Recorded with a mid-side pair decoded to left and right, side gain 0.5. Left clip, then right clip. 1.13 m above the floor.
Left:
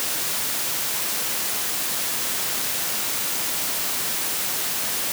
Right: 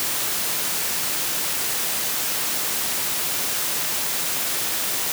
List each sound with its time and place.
Only background noise.